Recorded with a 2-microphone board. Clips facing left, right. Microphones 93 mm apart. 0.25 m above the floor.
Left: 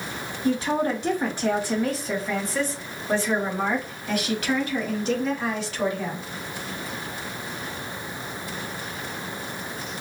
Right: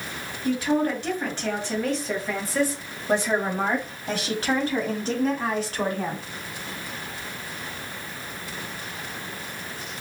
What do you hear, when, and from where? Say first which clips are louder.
0.4 s a woman speaking: even; 25° left (ahead or behind), 1.7 m; by 6.2 s 50° right (ahead or behind), 2 m